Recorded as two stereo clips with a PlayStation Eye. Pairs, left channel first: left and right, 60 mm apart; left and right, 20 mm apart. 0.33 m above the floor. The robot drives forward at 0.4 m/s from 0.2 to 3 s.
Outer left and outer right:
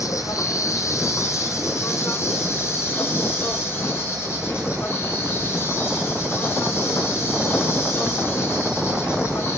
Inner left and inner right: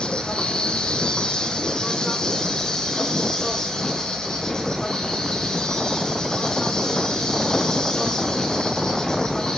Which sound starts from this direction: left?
An insect, at 0.0 s.